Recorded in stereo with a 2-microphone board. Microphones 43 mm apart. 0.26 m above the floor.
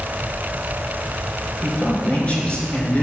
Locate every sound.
1.6 s a man speaking: 30° left (ahead or behind), 3.5 m